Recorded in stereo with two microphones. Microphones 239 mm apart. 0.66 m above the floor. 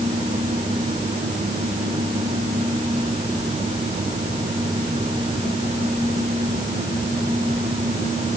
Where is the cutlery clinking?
I don't hear cutlery clinking.